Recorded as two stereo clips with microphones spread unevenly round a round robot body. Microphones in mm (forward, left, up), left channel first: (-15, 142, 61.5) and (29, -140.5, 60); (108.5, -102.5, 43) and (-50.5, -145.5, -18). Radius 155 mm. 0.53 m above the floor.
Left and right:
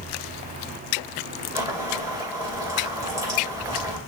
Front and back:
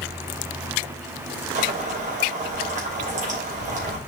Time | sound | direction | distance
1.6 | boiling | 160° right | 2.5 m